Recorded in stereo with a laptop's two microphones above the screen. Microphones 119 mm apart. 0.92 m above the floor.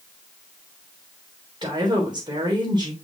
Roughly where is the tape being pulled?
No tape being pulled in this recording.